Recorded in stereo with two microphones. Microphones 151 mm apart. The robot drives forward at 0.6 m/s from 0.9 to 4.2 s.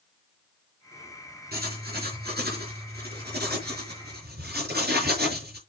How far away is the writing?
About 5.5 m.